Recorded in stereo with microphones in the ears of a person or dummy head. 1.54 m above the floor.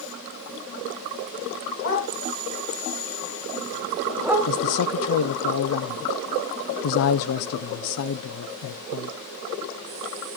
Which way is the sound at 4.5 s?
70° left (ahead or behind).